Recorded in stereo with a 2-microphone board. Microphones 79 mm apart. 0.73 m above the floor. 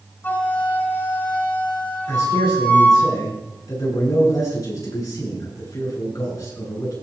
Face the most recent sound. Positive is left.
turn(degrees=50)  # may be behind; listen again after turning